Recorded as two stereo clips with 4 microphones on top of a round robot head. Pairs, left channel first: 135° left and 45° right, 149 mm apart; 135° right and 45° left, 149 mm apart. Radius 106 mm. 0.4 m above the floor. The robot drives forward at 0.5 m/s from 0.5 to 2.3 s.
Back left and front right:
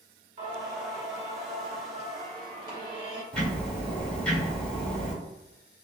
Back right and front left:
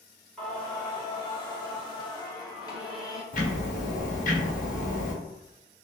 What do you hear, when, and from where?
0.4 s singing: 50° right, 1.8 m; by 3.2 s 95° right, 1.6 m
3.3 s ticking: 145° right, 1.4 m